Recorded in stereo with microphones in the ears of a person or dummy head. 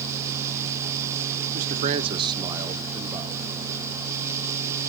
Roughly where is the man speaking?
Right.